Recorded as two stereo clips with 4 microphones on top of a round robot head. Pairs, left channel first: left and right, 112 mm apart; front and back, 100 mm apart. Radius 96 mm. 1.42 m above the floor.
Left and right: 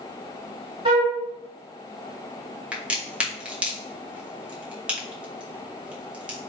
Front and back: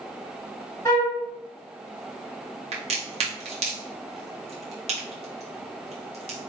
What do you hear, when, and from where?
0.8 s a flute: 65° right, 1.0 m
2.7 s a crack: 170° right, 1.5 m